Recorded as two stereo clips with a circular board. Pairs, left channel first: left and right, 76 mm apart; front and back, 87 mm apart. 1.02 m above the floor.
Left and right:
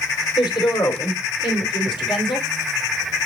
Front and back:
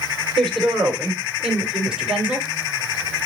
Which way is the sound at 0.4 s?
85° left.